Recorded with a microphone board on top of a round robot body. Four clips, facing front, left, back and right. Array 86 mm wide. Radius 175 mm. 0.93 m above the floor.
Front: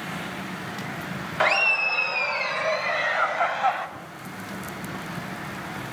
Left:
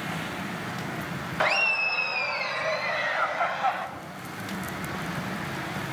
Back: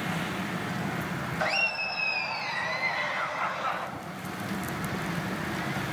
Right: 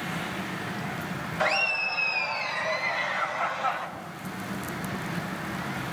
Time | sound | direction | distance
1.4 | laughter | 25° left | 1.6 m